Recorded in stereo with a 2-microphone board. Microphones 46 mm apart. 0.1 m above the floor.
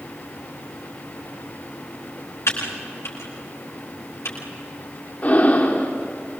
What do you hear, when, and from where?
2.5 s typing on a keyboard: 85° left, 7.5 m
5.2 s breathing: 40° left (ahead or behind), 4.5 m